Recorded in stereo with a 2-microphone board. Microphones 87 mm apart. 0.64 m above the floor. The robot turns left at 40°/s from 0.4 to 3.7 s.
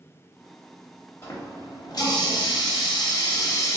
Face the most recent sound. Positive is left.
turn(degrees=45)